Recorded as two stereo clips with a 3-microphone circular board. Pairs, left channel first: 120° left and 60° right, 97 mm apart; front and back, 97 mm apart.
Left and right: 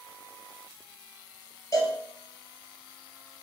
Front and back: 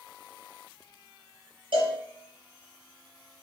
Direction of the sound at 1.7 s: 170° left.